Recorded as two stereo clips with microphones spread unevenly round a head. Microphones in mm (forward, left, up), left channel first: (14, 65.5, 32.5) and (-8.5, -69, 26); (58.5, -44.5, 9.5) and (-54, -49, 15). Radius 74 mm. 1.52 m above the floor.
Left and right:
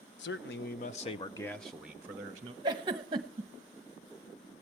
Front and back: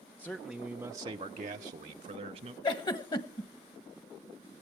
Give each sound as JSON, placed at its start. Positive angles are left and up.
{"t": 0.2, "sound": "a man speaking", "azimuth_deg": 85, "distance_m": 1.1}
{"t": 2.6, "sound": "a giggle", "azimuth_deg": -40, "distance_m": 1.0}